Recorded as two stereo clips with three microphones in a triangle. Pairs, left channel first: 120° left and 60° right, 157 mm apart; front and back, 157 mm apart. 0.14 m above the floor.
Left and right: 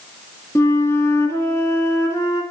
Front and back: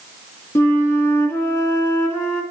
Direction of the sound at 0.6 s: 65° left.